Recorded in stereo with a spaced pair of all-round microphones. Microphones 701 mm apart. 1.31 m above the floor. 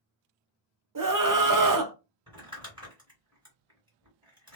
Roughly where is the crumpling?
Centre.